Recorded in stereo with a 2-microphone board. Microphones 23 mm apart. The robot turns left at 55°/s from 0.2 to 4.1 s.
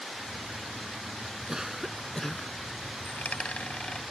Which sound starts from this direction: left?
A dropped coin, at 3.0 s.